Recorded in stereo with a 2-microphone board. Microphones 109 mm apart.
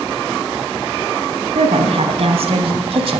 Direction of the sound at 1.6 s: 70° right (ahead or behind).